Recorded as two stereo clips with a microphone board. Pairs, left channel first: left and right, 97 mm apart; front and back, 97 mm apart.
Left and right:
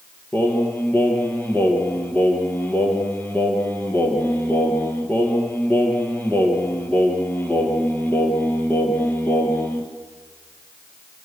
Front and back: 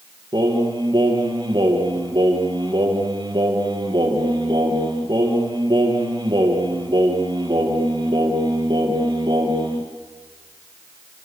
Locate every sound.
0.3 s singing: 160° left, 3 m